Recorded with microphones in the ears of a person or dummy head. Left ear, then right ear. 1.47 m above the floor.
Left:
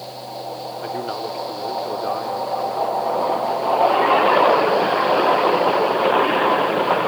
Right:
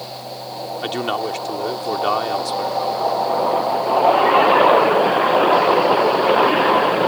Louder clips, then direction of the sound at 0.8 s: Right 5 dB; 85° right.